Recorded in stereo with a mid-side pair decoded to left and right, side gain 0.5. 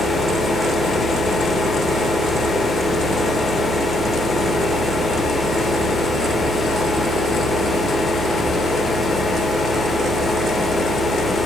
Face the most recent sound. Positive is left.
turn(degrees=30)